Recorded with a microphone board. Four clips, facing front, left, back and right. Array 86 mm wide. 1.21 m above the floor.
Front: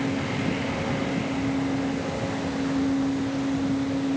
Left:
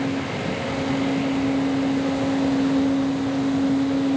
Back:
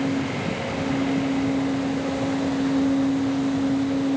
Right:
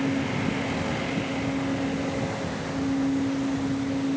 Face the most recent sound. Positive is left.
No sound to turn to.